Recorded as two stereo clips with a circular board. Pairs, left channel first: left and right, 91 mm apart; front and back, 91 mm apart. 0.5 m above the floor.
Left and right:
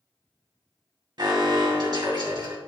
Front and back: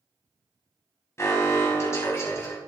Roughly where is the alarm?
Ahead right.